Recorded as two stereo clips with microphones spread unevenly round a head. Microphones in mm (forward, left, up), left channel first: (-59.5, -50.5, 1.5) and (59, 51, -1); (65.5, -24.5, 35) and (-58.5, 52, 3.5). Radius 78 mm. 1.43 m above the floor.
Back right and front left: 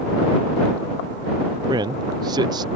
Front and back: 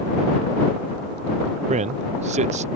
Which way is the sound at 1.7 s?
105° left.